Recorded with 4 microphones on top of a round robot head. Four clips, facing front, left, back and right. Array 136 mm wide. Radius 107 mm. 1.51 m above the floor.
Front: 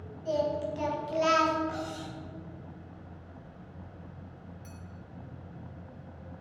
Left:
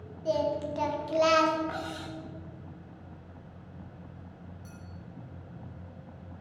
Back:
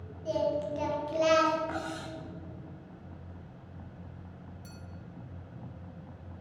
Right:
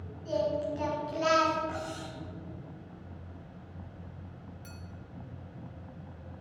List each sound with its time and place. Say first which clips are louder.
0.2 s singing: left 2 dB, even; 95° left, 2.5 m
1.7 s cutlery clinking: left 1 dB, even; 135° left, 0.6 m
4.6 s a clink: left 1 dB, even; 115° right, 1.2 m